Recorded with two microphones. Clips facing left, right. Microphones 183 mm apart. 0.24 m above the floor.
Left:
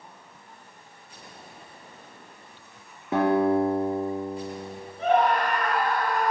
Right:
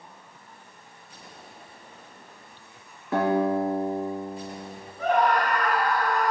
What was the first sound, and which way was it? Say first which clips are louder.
A guitar: left 2 dB; 20° left (ahead or behind).